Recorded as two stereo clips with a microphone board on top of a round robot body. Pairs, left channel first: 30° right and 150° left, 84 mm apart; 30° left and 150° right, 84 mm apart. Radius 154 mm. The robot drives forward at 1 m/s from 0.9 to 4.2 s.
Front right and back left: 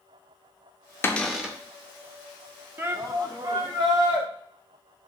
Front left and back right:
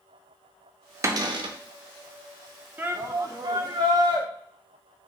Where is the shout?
170° left, 0.9 m; by 4.3 s straight behind, 1.9 m.